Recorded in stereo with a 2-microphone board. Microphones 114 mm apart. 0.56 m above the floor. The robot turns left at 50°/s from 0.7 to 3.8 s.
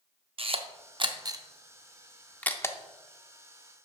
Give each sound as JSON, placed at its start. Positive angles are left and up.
{"t": 0.4, "sound": "a camera shutter", "side_deg": -55, "distance_m": 0.6}